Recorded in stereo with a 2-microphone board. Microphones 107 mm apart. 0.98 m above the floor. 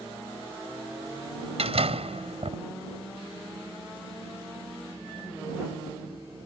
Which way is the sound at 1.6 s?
70° right (ahead or behind).